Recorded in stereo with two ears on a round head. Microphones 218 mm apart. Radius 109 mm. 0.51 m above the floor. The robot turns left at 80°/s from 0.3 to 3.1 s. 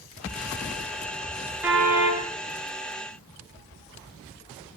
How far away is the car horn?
About 4.5 m.